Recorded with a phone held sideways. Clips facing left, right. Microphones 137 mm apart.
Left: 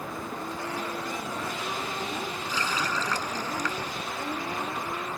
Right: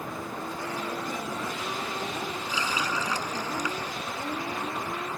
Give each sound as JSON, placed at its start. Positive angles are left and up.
{"t": 2.5, "sound": "a running tap", "side_deg": -10}